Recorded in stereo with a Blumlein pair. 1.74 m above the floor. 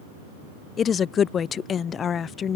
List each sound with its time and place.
0.8 s a woman speaking: 25° left